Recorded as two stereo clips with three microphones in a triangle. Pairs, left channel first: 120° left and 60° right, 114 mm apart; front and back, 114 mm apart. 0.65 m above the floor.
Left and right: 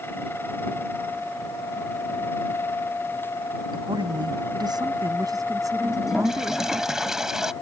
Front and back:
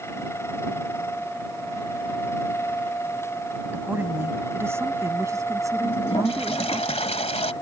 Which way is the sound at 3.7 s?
105° right.